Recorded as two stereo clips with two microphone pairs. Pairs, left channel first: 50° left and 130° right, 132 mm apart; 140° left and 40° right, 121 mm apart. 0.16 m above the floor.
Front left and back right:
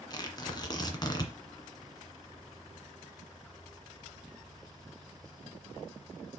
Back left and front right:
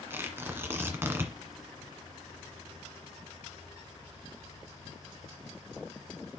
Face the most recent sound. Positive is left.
turn(degrees=20)